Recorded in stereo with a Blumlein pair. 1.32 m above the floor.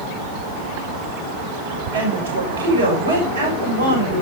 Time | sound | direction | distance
1.9 | a woman speaking | 65° right | 7 m